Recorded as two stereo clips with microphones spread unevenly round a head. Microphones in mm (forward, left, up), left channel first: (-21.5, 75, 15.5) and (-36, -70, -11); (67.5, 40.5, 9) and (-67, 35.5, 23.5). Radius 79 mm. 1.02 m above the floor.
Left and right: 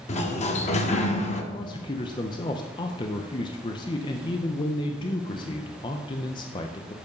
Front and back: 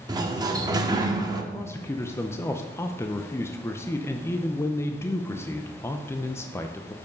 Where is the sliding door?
125° left, 1.0 m.